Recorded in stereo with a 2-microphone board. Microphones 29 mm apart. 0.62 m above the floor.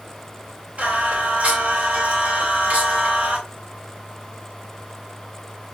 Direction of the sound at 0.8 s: 60° right (ahead or behind).